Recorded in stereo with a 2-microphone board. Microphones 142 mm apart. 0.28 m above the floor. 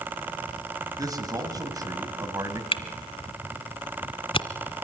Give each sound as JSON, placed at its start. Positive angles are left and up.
{"t": 1.0, "sound": "a man speaking", "side_deg": -25, "distance_m": 2.5}
{"t": 2.7, "sound": "a camera shutter", "side_deg": 40, "distance_m": 1.4}